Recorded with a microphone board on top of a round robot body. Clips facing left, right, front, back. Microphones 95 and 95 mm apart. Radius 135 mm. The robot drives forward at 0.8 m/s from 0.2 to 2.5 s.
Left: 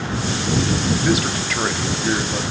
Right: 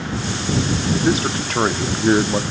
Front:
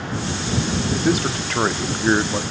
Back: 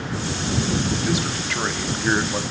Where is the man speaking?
35° right, 1.7 m; by 2.4 s 85° right, 1.0 m.